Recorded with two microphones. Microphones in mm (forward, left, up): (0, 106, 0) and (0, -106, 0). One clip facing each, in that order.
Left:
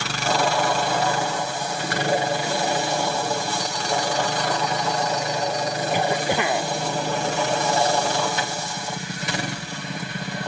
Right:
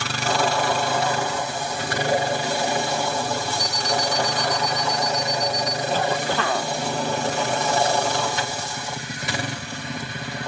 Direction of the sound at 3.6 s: 60° left (ahead or behind).